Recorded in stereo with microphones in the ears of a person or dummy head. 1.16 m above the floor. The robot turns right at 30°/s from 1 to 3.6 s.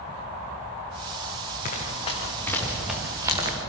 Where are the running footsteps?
40° left (ahead or behind), 5.5 m; by 3.6 s 35° right (ahead or behind), 4.5 m.